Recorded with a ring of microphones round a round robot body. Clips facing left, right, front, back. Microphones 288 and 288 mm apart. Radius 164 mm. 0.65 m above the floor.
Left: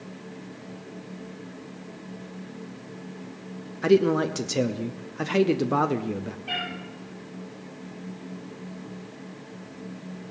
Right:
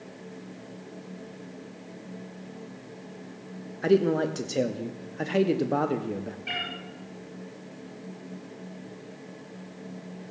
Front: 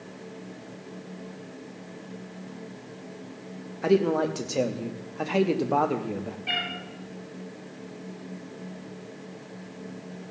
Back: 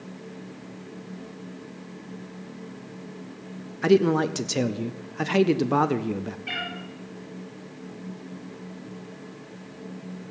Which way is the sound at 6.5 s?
110° right.